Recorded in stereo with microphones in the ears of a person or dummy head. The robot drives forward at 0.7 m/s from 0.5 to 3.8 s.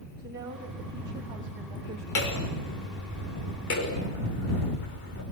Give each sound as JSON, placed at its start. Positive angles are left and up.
{"t": 0.2, "sound": "a woman speaking", "side_deg": -20, "distance_m": 2.5}
{"t": 2.1, "sound": "hammering", "side_deg": 80, "distance_m": 5.5}